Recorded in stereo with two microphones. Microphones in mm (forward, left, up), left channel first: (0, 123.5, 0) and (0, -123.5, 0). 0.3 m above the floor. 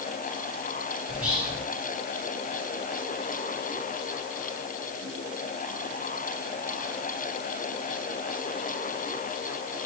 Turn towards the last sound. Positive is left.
turn(degrees=-10)  # may be behind; listen again after turning